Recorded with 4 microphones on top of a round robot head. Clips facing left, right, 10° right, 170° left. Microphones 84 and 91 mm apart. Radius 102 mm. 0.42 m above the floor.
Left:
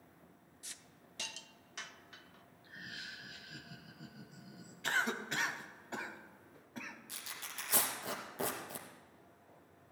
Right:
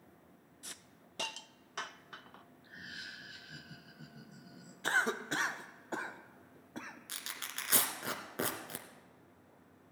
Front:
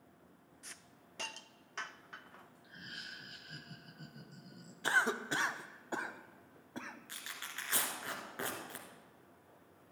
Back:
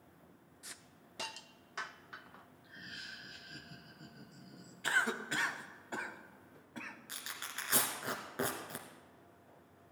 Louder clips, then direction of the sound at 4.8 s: Right 3 dB, front 2 dB; 55° right.